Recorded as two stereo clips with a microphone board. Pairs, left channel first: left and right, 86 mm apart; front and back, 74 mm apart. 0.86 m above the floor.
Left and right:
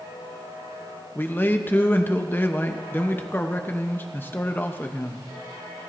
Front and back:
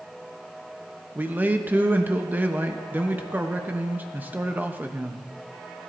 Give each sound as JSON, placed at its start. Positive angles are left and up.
{"t": 1.1, "sound": "a man speaking", "azimuth_deg": 135, "distance_m": 0.9}